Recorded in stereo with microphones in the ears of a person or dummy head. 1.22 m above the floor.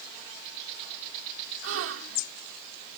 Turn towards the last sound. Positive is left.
turn(degrees=-75)  # may be behind; listen again after turning